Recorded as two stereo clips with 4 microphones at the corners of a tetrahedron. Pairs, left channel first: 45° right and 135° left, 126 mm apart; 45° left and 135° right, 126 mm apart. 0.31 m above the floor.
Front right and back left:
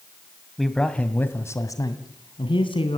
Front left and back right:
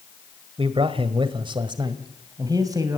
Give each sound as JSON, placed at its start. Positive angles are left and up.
{"t": 0.6, "sound": "a man speaking", "azimuth_deg": -135, "distance_m": 1.9}